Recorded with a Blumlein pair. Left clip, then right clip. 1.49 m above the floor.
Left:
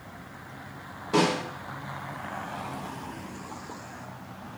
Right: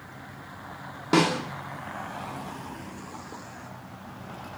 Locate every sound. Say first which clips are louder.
1.1 s a snare drum: right 1 dB; 40° right, 0.9 m